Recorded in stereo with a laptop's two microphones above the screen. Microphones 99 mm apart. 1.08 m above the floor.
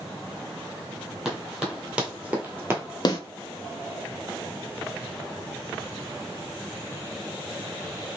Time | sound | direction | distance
1.2 | running footsteps | centre (ahead or behind) | 1.5 m
3.0 | a snare drum | 45° left (ahead or behind) | 0.8 m